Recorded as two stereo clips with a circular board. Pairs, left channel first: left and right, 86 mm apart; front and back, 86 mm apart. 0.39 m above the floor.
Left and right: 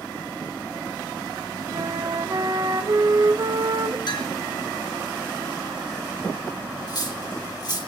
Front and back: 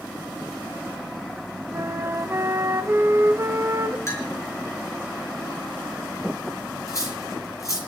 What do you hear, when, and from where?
1.7 s a flute: 125° right, 1.0 m
4.1 s a clink: 60° left, 5.5 m
6.9 s cutlery clinking: 55° left, 7 m